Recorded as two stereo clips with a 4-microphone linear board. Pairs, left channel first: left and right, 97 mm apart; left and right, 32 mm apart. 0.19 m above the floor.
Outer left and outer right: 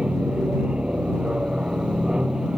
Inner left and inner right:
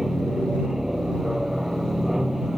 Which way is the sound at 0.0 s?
10° right (ahead or behind).